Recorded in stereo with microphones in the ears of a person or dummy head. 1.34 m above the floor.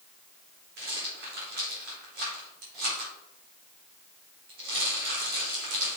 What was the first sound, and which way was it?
A rattle, 45° right (ahead or behind).